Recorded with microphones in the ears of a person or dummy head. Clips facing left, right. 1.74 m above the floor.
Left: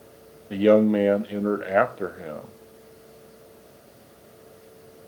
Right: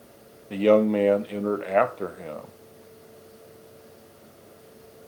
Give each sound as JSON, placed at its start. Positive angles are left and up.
{"t": 0.5, "sound": "a man speaking", "side_deg": 5, "distance_m": 0.6}